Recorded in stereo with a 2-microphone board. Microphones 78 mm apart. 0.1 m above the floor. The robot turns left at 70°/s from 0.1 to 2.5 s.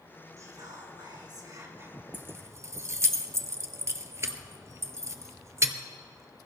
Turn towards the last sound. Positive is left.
turn(degrees=-40)  # may be behind; listen again after turning